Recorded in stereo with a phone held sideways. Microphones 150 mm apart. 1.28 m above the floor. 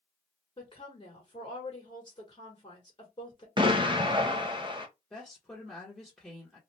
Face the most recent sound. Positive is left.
turn(degrees=5)  # may be behind; listen again after turning